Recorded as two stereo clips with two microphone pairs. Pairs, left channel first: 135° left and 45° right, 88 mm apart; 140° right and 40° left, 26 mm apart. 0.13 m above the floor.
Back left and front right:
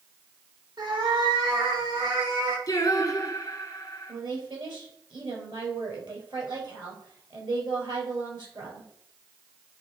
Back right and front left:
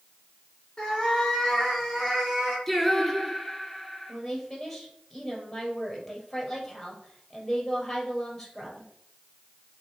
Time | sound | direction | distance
0.8 | a cat meowing | 75° right | 4 m
2.7 | singing | 135° left | 1.8 m
4.1 | a woman speaking | 60° right | 3 m